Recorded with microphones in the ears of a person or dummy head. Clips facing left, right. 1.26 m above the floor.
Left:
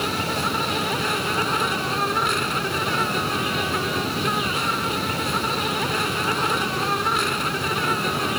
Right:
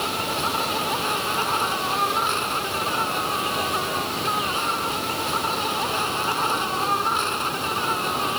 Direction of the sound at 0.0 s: 25° left (ahead or behind).